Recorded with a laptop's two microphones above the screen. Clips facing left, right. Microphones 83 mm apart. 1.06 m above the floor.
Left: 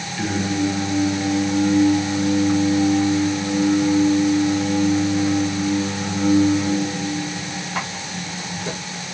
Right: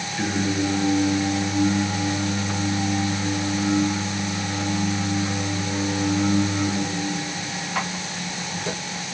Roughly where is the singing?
Centre.